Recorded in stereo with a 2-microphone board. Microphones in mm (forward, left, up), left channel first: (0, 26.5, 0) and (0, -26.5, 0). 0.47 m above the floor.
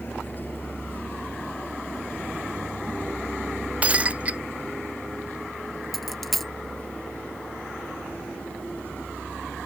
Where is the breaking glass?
25° right (ahead or behind).